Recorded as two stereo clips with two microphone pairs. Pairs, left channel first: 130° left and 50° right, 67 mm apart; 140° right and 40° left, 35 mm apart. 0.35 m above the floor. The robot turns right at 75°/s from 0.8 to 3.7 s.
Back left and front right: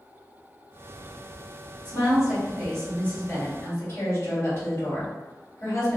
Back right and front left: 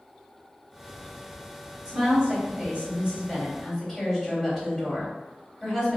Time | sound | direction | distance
1.9 | a woman speaking | 15° right | 1.8 m